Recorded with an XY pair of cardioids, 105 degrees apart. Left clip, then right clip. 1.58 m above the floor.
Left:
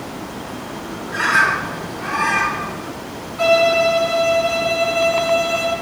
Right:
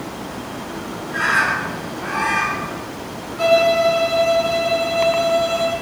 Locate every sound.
1.1 s a bird: 55° left, 6.5 m
3.4 s a violin: 35° left, 7 m